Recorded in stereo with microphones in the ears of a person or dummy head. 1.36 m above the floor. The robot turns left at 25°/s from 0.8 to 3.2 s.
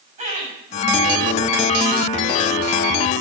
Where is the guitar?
No guitar in this recording.